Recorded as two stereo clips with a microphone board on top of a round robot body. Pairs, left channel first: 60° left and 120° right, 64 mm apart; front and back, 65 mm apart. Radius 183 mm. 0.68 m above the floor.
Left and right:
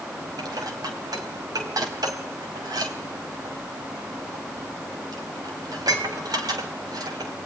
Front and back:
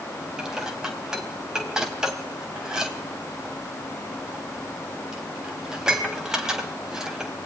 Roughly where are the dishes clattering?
Right.